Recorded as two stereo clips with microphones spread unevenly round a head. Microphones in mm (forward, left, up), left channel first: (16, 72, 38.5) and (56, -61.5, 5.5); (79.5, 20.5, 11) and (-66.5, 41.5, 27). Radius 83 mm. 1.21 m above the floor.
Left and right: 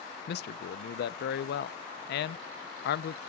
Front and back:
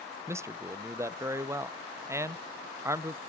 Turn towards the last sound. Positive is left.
turn(degrees=95)